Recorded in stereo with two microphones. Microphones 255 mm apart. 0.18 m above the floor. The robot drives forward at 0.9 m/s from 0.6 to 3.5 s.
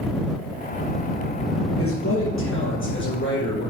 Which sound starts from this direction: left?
A man speaking, at 1.8 s.